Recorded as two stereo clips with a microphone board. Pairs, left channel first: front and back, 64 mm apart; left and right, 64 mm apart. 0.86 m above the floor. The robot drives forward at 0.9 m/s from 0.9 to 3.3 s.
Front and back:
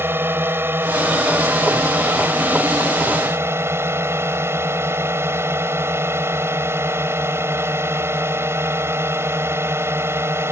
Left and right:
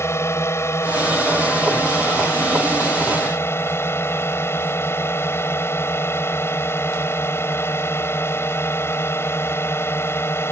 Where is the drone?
130° left; by 10.5 s 135° left.